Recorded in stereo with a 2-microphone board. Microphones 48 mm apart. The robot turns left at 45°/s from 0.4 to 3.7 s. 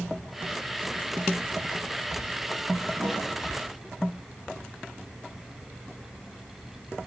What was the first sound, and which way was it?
A snare drum, 45° left (ahead or behind).